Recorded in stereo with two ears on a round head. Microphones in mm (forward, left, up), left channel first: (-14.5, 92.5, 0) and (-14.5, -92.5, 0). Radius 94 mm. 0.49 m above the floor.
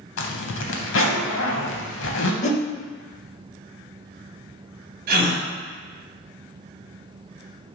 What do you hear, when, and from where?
0.2 s a zipper: 70° left (ahead or behind), 0.8 m
2.4 s a whoosh: 35° left (ahead or behind), 0.5 m
5.1 s a gasp: 45° right (ahead or behind), 1.4 m